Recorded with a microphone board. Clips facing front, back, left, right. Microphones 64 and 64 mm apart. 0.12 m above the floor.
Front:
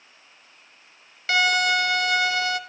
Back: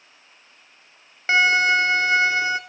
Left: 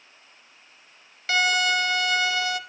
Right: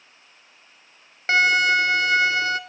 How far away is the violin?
About 0.5 m.